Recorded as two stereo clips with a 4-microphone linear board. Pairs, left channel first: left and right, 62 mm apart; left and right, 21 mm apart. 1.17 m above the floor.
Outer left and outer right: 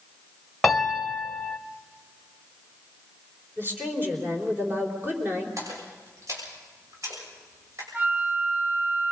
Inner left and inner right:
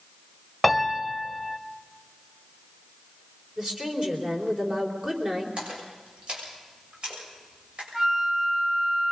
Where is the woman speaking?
35° right (ahead or behind), 4 m.